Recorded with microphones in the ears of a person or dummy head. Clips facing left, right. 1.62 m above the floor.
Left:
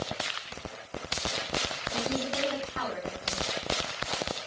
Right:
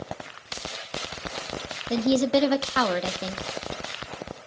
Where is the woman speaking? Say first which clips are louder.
Right 12 dB; 80° right, 1.3 m.